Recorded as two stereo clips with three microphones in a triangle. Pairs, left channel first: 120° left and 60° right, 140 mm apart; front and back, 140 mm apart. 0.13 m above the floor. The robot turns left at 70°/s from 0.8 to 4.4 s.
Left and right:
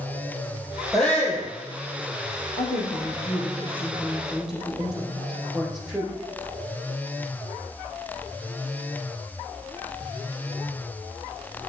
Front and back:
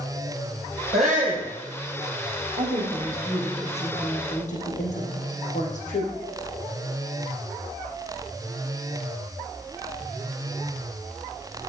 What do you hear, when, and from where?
0.9 s a shout: 150° right, 3.5 m; by 1.5 s 175° left, 3.5 m
2.6 s a woman speaking: 155° left, 4.5 m; by 6.1 s 25° left, 4.5 m